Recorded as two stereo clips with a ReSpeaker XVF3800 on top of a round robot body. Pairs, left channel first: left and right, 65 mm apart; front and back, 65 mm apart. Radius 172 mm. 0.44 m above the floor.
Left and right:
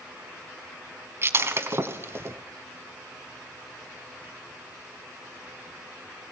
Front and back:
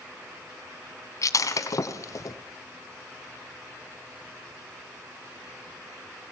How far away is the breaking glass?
About 1.4 m.